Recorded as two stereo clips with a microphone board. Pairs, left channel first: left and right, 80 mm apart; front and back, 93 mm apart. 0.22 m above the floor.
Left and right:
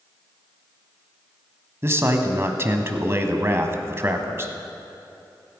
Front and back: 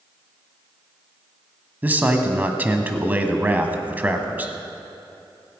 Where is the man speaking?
120° right, 1.3 m.